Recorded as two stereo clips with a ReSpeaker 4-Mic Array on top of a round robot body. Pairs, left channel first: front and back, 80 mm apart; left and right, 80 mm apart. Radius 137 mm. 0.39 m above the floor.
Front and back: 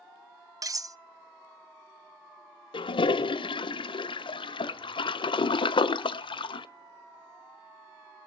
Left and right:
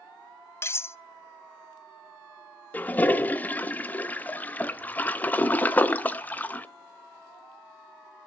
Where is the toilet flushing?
20° left, 0.6 m.